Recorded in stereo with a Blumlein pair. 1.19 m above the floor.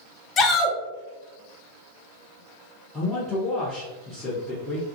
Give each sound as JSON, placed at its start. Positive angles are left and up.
{"t": 0.4, "sound": "a shout", "azimuth_deg": 25, "distance_m": 0.7}
{"t": 2.9, "sound": "a man speaking", "azimuth_deg": 10, "distance_m": 0.7}